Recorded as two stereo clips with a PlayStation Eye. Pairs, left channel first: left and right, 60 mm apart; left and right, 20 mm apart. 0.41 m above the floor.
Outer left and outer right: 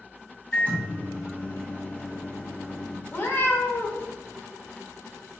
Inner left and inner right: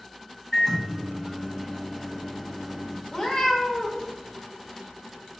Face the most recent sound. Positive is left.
turn(degrees=35)  # may be behind; listen again after turning